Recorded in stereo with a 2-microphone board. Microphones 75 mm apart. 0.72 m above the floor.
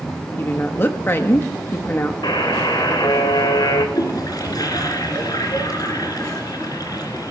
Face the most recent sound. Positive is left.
turn(degrees=55)  # may be behind; listen again after turning